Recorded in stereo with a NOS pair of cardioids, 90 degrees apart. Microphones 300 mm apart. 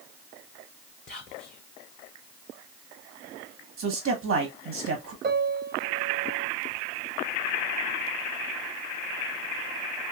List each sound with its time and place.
1.1 s whispering: 30° left, 0.6 m
3.8 s a man speaking: 60° right, 1.4 m
5.2 s a piano: 35° right, 1.0 m